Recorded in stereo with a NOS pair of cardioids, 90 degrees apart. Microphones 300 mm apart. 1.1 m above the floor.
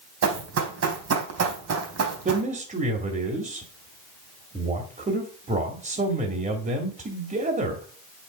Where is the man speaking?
25° right, 2 m.